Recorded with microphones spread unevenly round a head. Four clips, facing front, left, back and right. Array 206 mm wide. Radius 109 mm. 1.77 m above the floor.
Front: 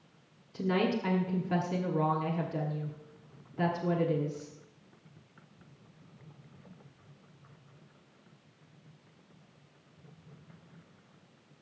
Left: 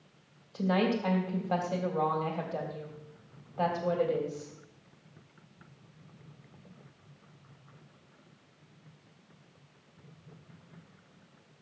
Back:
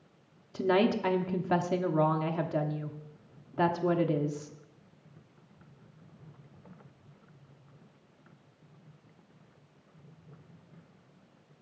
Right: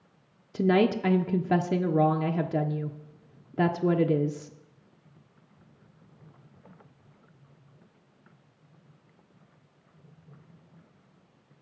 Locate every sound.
0.5 s a woman speaking: 115° right, 1.0 m